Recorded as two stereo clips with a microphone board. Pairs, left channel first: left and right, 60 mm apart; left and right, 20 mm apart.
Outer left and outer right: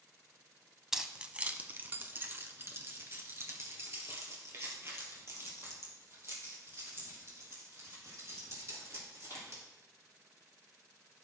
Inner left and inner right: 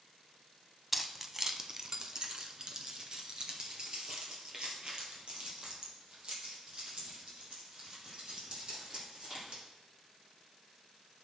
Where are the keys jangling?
5° right (ahead or behind), 0.8 m; by 9.6 s 45° right (ahead or behind), 6.5 m.